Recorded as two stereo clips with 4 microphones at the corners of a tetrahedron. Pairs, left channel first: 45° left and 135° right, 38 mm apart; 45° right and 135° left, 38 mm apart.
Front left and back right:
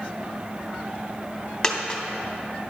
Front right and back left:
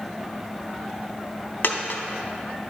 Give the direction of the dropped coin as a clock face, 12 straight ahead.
1 o'clock.